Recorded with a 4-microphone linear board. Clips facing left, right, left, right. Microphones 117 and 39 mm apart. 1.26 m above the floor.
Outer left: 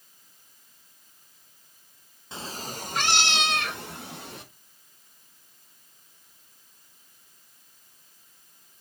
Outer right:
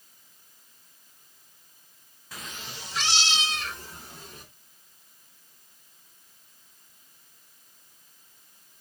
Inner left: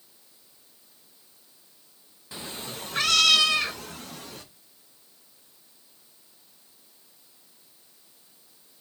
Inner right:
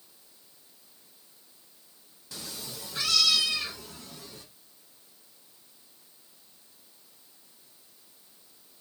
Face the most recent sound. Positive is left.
turn(degrees=75)  # may be behind; listen again after turning